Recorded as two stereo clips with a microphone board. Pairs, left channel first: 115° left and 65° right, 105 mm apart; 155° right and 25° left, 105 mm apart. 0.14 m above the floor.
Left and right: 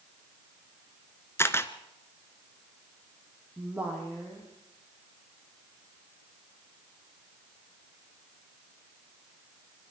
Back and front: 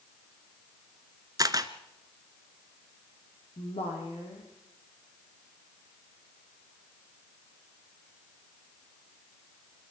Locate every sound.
1.4 s a camera shutter: 55° left, 1.1 m
3.6 s a woman speaking: 145° right, 5 m